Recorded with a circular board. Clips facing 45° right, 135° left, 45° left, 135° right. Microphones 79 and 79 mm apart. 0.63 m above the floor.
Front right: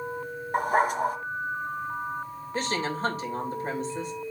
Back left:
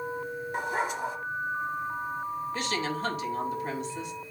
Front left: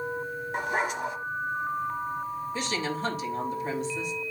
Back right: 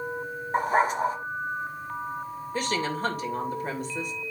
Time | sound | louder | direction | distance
0.5 | a dog barking | front right 7 dB, back right 6 dB | 85° right | 1.1 m
2.5 | a woman speaking | front right 6 dB, back right 6 dB | 95° right | 2.5 m